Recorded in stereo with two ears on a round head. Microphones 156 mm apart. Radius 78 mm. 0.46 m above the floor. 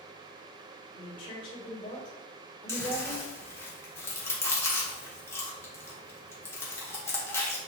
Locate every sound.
0.9 s a woman speaking: 50° left (ahead or behind), 1.9 m
2.7 s chewing: 15° left (ahead or behind), 1.0 m